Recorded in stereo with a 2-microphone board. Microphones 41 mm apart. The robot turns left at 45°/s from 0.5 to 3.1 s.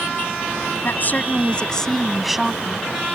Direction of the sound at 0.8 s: 60° left.